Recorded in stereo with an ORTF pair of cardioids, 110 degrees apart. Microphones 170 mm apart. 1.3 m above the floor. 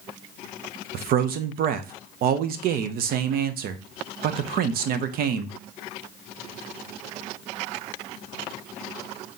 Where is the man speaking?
65° right, 0.7 m.